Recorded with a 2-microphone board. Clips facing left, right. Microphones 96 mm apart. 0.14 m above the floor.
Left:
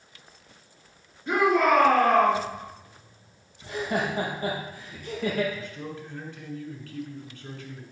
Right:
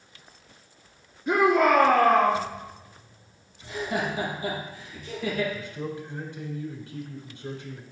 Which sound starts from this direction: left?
Laughter, at 3.6 s.